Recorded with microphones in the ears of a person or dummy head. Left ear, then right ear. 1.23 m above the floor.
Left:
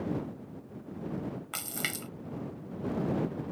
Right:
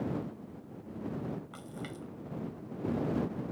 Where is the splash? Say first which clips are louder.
Left 9 dB; 50° left (ahead or behind).